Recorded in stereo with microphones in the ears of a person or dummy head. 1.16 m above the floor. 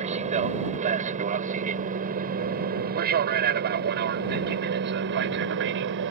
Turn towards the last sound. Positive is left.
turn(degrees=-55)  # may be behind; listen again after turning